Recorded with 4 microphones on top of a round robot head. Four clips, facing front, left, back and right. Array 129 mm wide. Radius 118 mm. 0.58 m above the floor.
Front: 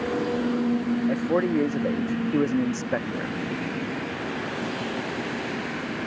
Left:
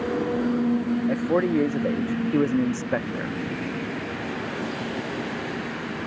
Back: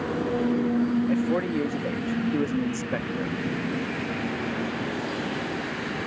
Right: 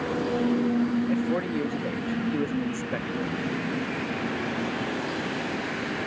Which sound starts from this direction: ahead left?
A man speaking, at 1.1 s.